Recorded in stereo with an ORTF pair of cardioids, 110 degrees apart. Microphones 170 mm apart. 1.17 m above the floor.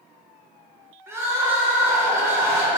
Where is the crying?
15° right, 0.8 m.